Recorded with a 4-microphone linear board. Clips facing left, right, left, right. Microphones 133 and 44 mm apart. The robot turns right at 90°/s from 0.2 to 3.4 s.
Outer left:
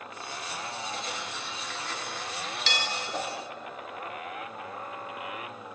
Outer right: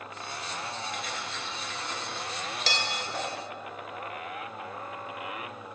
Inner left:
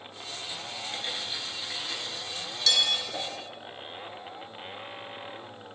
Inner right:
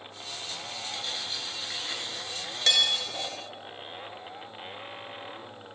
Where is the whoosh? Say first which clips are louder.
Outer left 1 dB, inner left 1 dB; 15° left (ahead or behind), 0.7 m; by 3.4 s 25° left (ahead or behind), 0.7 m.